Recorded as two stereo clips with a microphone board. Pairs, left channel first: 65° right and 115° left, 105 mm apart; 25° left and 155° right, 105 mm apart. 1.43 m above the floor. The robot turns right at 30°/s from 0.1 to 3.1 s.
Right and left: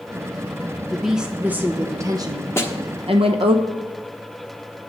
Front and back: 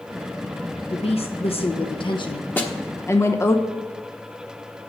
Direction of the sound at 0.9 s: 20° left.